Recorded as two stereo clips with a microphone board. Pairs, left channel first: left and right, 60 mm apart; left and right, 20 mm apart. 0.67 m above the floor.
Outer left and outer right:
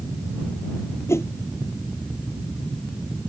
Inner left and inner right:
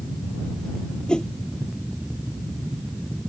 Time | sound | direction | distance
1.1 | a whoosh | 45° left (ahead or behind) | ?